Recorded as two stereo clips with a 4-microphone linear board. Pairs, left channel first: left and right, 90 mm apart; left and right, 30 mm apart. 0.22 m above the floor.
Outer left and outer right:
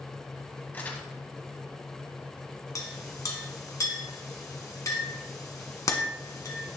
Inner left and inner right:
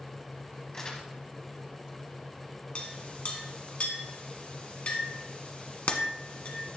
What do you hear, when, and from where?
0.7 s crumpling: 20° left (ahead or behind), 1.4 m
2.8 s a clink: 40° left (ahead or behind), 1.6 m